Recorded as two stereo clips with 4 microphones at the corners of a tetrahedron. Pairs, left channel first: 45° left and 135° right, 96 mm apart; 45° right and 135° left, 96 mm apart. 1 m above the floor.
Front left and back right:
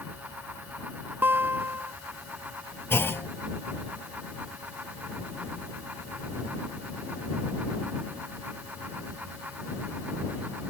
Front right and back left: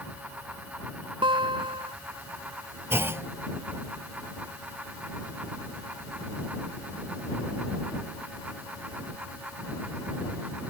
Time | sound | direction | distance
1.2 | a guitar | 160° left | ?
2.9 | a clunk | 95° left | ?